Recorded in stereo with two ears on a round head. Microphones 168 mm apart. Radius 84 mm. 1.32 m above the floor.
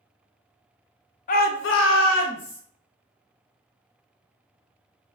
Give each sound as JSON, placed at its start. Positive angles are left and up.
{"t": 1.3, "sound": "a shout", "side_deg": 40, "distance_m": 0.6}